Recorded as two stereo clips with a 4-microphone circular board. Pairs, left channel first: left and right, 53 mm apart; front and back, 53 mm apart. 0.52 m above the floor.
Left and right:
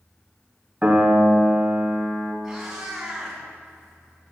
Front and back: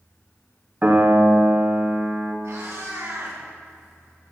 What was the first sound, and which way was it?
A piano, 140° right.